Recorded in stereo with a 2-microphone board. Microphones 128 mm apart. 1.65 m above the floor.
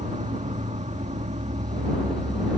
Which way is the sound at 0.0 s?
75° right (ahead or behind).